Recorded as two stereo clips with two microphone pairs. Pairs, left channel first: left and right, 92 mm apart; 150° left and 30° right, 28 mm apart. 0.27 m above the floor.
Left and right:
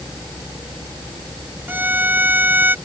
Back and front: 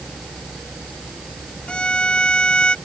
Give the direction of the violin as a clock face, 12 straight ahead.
5 o'clock.